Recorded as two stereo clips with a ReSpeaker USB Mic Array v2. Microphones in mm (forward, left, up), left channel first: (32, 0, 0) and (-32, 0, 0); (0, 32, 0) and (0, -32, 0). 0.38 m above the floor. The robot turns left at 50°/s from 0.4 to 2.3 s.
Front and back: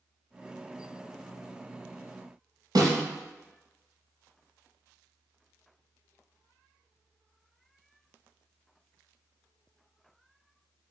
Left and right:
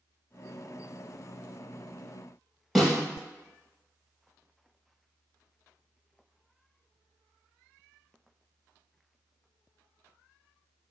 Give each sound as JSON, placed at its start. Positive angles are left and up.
{"t": 2.8, "sound": "a snare drum", "azimuth_deg": 180, "distance_m": 3.0}